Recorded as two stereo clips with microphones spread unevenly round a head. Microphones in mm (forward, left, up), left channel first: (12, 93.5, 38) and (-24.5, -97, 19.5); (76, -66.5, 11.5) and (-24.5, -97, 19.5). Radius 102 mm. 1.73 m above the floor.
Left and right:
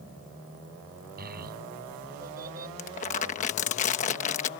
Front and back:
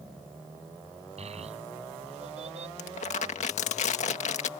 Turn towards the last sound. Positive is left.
turn(degrees=30)